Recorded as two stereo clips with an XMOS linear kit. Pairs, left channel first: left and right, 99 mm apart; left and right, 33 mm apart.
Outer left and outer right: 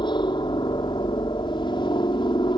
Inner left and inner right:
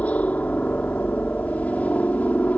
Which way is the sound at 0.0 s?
50° left (ahead or behind).